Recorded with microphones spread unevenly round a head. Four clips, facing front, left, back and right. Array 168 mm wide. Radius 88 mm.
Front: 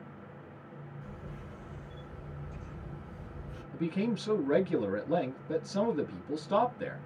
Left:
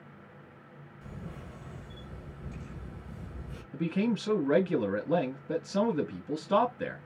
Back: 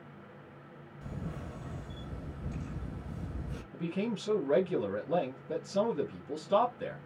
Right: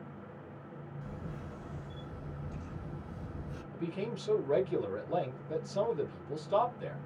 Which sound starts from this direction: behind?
A camera shutter, at 1.0 s.